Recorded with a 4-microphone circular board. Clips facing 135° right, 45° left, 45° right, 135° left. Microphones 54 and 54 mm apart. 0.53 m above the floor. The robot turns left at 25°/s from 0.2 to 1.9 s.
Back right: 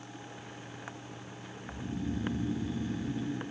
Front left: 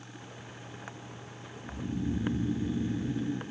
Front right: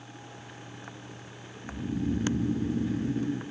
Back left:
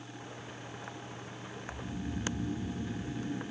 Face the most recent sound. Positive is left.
turn(degrees=-30)